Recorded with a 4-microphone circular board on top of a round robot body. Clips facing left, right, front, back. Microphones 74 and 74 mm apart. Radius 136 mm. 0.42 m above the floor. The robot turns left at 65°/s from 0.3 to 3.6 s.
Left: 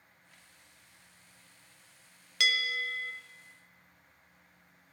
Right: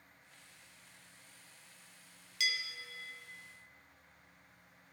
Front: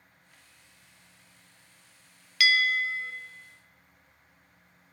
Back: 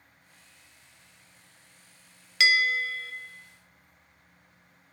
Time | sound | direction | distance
2.4 | a bell | 115° left | 0.6 m